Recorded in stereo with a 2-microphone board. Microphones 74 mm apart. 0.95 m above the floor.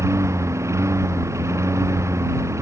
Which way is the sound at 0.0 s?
40° right (ahead or behind).